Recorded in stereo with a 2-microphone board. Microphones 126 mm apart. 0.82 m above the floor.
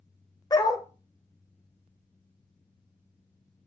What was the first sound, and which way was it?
A dog barking, 30° left (ahead or behind).